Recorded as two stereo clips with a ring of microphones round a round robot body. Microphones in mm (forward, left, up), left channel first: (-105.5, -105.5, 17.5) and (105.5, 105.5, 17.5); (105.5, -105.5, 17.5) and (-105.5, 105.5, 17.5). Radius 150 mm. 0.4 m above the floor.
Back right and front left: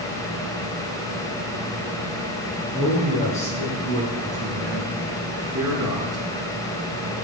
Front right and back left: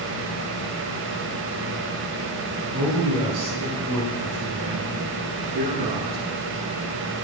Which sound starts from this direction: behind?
A man speaking, at 2.7 s.